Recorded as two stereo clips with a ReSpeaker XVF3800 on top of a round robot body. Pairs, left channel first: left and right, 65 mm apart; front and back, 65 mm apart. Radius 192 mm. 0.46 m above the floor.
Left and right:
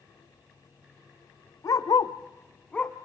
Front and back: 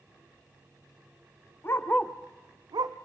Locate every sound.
1.6 s a dog barking: 55° left, 1.1 m; by 3.0 s 170° left, 1.2 m